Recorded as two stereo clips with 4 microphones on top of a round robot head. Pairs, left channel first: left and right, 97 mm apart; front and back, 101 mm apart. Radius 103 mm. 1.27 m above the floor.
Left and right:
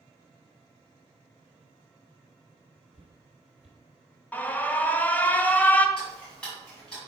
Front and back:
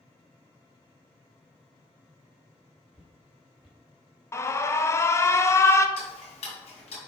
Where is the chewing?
I don't hear chewing.